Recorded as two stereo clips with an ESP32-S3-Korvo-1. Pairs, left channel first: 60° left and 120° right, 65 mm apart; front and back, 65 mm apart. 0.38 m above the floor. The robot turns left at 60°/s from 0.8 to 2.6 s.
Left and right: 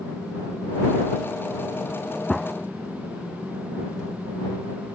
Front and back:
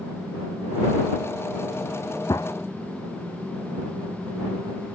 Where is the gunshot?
25° right; by 2.5 s 40° right.